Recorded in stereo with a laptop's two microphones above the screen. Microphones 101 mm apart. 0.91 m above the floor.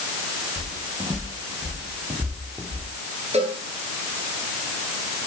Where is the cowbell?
80° right, 8 m.